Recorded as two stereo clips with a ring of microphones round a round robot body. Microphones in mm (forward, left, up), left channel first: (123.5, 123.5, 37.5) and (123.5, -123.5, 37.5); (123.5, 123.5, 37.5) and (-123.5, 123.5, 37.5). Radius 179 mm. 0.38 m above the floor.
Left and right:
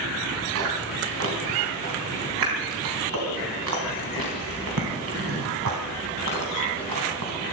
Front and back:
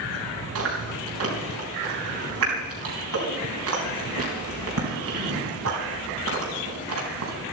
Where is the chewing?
135° right, 3.5 m.